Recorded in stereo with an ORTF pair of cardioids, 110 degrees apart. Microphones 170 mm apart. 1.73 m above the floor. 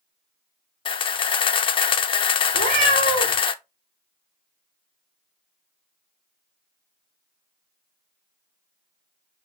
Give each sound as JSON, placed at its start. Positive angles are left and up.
{"t": 0.8, "sound": "a camera shutter", "azimuth_deg": 30, "distance_m": 0.5}
{"t": 2.5, "sound": "a cat meowing", "azimuth_deg": -60, "distance_m": 3.5}